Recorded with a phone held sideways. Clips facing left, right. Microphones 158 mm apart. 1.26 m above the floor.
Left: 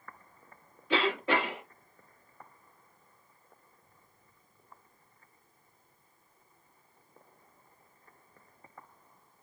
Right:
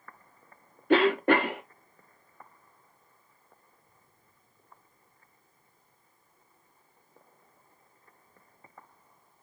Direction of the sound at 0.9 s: 55° right (ahead or behind).